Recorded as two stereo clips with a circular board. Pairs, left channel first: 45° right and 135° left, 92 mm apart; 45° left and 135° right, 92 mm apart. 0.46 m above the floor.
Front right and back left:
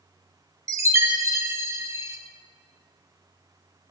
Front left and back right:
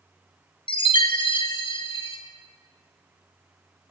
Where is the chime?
75° left, 0.6 m.